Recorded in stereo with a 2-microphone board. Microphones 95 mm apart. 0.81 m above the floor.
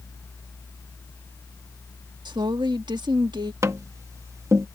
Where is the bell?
No bell in this recording.